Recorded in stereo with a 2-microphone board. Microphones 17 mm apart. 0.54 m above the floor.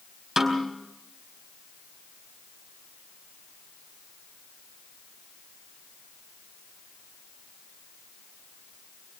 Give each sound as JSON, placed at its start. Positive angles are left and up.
{"t": 0.4, "sound": "a snare drum", "side_deg": -20, "distance_m": 4.5}